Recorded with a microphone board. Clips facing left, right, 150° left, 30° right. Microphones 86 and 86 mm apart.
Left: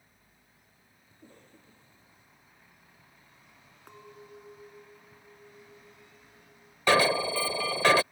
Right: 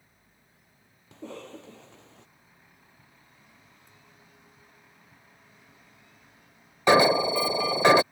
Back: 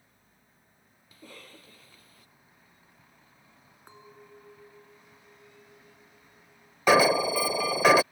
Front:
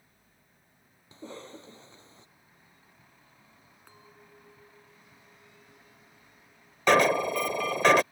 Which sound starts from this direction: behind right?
An alarm, at 6.9 s.